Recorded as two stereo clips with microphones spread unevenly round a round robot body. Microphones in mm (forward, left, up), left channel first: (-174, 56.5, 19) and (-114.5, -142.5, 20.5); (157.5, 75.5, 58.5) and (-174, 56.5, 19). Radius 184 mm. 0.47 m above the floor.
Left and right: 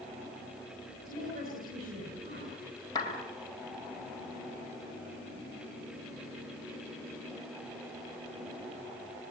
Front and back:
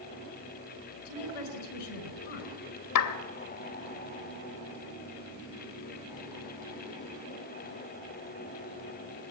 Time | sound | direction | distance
1.1 | a woman speaking | 5° right | 7 m
3.0 | a clap | 30° left | 2 m